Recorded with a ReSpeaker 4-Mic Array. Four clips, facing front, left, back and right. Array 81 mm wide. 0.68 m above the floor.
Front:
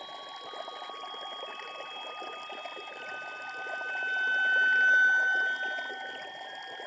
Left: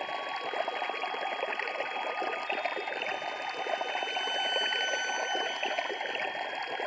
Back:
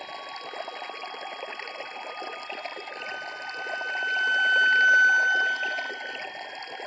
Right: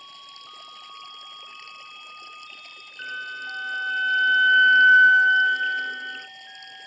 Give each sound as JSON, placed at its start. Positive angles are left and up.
{"t": 0.0, "sound": "running water", "azimuth_deg": 110}
{"t": 3.0, "sound": "a violin", "azimuth_deg": -100}